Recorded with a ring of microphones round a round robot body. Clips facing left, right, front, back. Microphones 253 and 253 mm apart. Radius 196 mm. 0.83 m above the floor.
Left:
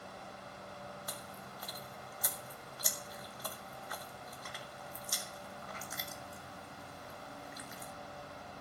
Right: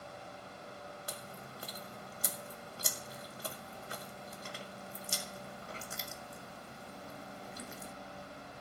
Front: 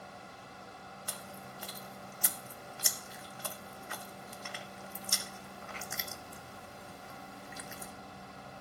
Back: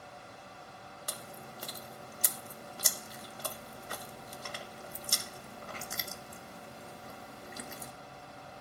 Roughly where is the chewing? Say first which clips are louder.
Right 1 dB, back 2 dB; behind right.